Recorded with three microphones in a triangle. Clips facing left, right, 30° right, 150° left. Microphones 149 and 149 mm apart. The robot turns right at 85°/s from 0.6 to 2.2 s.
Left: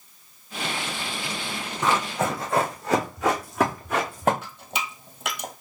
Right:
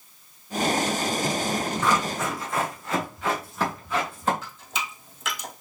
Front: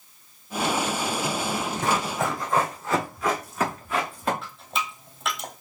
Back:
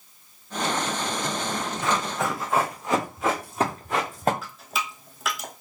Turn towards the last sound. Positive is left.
turn(degrees=65)